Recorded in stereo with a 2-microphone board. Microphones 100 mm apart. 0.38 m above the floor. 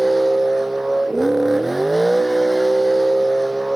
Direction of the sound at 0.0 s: 5° right (ahead or behind).